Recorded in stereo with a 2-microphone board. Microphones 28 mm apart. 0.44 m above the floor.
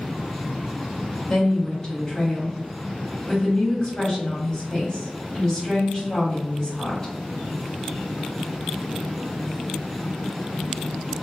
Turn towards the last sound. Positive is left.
turn(degrees=15)  # may be behind; listen again after turning